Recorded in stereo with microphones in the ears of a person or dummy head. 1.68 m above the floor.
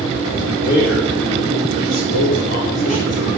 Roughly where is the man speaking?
Left.